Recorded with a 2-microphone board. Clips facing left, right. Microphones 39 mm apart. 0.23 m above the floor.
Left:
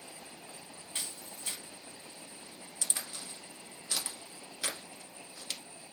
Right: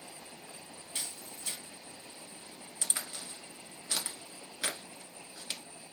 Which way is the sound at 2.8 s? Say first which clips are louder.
Right 1 dB; 20° right (ahead or behind).